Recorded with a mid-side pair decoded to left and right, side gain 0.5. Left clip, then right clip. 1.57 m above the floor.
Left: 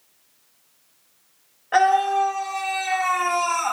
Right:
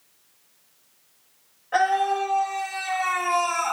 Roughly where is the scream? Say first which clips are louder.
Left 4 dB; ahead left.